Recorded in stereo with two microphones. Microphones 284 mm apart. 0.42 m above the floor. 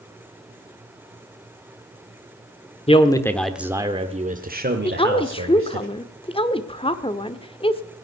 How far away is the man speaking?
About 1.1 m.